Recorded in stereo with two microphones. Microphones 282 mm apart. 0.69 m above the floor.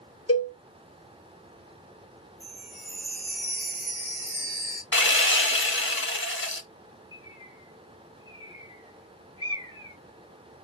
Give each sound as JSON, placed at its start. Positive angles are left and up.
{"t": 0.3, "sound": "a cowbell", "side_deg": 55, "distance_m": 0.7}
{"t": 2.4, "sound": "a chime", "side_deg": -20, "distance_m": 1.8}
{"t": 4.9, "sound": "sawing", "side_deg": 45, "distance_m": 0.6}
{"t": 7.1, "sound": "a bird", "side_deg": -15, "distance_m": 0.9}